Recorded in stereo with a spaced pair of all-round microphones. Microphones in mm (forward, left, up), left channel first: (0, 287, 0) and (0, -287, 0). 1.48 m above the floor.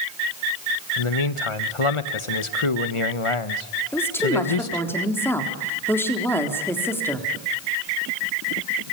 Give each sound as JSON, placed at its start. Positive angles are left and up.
{"t": 1.0, "sound": "a man speaking", "side_deg": 60, "distance_m": 1.3}
{"t": 3.9, "sound": "a woman speaking", "side_deg": 5, "distance_m": 3.5}